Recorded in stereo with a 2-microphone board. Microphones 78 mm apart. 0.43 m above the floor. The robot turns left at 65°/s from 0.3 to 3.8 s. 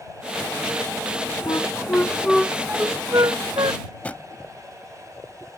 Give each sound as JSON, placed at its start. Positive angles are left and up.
{"t": 1.5, "sound": "a flute", "side_deg": 60}
{"t": 3.9, "sound": "a drawer", "side_deg": 20}